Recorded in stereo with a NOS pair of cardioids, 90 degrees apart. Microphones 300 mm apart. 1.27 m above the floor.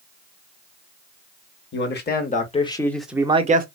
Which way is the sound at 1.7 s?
40° left.